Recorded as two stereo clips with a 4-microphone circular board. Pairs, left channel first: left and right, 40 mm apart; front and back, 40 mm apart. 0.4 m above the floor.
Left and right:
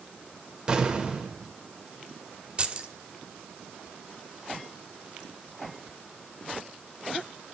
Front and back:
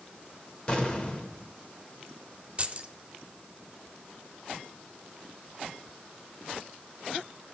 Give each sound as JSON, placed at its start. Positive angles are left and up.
{"t": 0.7, "sound": "an explosion", "azimuth_deg": -35, "distance_m": 1.4}
{"t": 2.6, "sound": "keys jangling", "azimuth_deg": -135, "distance_m": 0.8}